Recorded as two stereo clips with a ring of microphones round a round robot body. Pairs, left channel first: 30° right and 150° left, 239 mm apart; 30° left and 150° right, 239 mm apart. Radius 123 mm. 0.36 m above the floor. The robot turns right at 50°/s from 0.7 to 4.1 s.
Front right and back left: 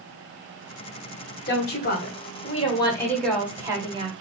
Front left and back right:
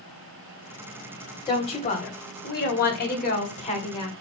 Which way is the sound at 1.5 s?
35° right.